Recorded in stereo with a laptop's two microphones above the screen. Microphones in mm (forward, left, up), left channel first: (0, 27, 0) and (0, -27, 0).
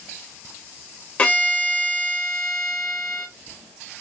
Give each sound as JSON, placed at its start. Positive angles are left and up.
{"t": 1.2, "sound": "a violin", "side_deg": 30, "distance_m": 1.3}